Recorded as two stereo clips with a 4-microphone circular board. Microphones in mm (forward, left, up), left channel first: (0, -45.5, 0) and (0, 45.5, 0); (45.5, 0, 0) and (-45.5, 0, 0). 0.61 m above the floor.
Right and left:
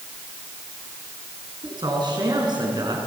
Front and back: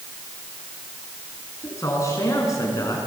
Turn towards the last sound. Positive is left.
turn(degrees=55)